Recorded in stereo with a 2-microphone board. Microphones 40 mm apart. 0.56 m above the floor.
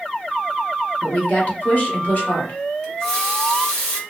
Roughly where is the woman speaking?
Left.